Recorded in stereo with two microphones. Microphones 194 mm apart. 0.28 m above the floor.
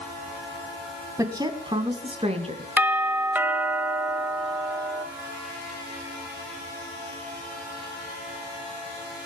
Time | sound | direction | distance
1.2 | a woman speaking | 15° right (ahead or behind) | 2 m
2.8 | a doorbell | 10° right (ahead or behind) | 1.4 m